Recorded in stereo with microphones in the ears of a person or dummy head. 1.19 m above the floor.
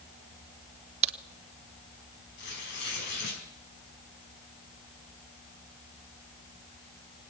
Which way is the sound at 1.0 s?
35° right (ahead or behind).